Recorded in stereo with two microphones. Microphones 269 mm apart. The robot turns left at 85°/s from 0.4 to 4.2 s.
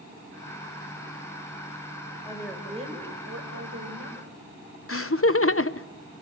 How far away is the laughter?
About 0.9 m.